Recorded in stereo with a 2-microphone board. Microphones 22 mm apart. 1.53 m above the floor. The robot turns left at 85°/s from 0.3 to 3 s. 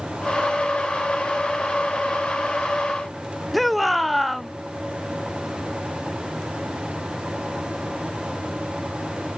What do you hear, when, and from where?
3.5 s a shout: centre (ahead or behind)